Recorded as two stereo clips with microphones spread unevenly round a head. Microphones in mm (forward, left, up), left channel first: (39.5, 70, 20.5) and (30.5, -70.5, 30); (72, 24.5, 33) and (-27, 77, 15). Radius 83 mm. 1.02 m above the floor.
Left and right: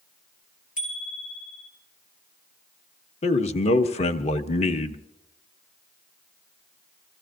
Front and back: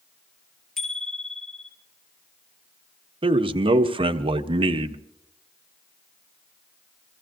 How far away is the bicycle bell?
About 7 m.